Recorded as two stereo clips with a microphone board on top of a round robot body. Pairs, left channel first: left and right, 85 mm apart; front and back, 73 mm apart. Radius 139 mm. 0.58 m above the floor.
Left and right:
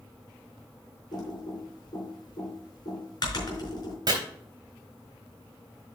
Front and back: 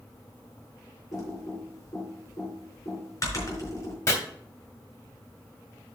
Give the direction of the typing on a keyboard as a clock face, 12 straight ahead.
10 o'clock.